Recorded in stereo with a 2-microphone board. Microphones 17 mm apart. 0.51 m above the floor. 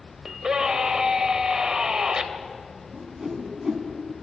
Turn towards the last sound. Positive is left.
turn(degrees=-30)  # may be behind; listen again after turning